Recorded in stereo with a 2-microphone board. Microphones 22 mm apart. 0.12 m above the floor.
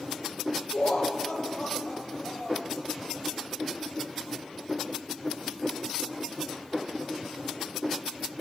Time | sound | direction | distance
0.7 | laughter | 70° left (ahead or behind) | 4 m